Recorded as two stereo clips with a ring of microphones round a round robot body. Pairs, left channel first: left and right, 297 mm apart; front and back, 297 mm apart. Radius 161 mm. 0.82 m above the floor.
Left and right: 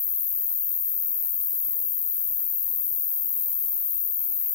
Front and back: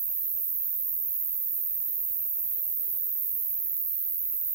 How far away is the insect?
About 1.8 m.